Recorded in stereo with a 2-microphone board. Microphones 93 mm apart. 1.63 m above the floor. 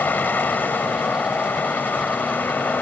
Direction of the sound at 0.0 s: 20° left (ahead or behind).